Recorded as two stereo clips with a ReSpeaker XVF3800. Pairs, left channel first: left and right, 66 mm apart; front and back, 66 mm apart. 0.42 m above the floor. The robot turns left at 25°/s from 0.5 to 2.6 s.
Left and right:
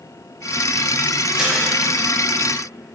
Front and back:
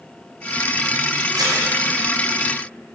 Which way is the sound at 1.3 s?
165° right.